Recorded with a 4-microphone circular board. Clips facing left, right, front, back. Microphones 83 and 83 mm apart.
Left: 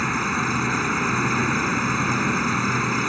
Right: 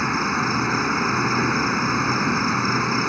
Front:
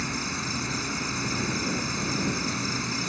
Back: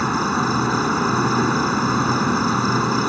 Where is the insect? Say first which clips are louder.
Right 2 dB, back 13 dB; 170° right.